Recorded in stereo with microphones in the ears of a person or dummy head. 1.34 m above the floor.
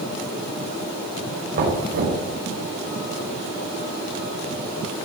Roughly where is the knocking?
Right.